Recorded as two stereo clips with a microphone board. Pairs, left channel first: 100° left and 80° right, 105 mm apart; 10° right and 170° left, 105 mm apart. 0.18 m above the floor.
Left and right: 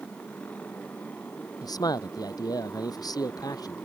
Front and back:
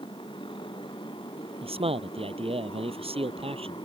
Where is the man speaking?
150° left.